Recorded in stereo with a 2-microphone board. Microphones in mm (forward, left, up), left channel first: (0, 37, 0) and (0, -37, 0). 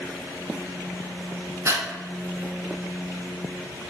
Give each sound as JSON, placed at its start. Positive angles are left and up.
{"t": 1.6, "sound": "breathing", "side_deg": -45, "distance_m": 0.6}